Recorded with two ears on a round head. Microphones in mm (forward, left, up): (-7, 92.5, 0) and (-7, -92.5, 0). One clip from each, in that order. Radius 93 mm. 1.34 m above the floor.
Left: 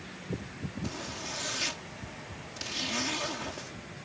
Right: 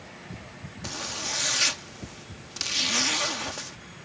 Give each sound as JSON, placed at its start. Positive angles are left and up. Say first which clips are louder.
{"t": 0.8, "sound": "a zipper", "louder": "right 7 dB", "side_deg": -45}